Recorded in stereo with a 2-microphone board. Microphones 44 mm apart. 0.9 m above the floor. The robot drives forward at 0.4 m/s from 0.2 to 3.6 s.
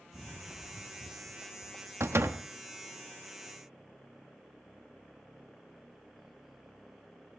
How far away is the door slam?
About 0.9 m.